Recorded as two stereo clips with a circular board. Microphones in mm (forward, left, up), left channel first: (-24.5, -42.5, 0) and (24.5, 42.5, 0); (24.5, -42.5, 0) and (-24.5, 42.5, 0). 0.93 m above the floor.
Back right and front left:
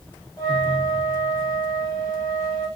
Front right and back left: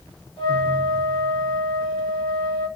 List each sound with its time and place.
0.4 s a flute: 75° right, 1.5 m